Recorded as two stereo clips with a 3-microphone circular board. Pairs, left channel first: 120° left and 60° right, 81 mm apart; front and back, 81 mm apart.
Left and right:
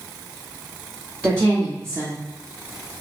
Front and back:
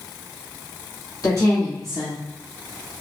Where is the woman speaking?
Straight ahead, 1.2 m; by 3.0 s 65° right, 0.7 m.